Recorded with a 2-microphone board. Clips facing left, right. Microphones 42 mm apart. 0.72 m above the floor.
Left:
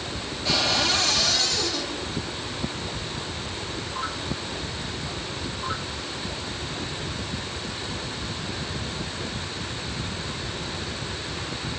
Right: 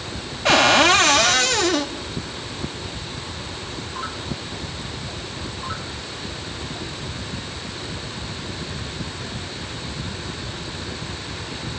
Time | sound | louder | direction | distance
0.5 | a cupboard door | right 10 dB | 60° right (ahead or behind) | 0.9 m